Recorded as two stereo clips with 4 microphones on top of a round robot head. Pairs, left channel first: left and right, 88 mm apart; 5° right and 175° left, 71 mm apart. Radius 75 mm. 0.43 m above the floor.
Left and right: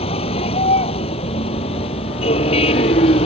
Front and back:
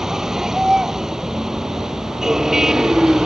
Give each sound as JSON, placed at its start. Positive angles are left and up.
{"t": 0.0, "sound": "a vehicle", "azimuth_deg": 90}